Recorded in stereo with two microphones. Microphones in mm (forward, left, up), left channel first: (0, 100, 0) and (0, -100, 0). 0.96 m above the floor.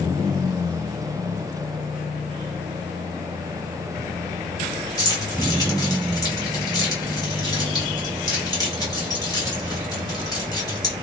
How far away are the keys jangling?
About 1.6 m.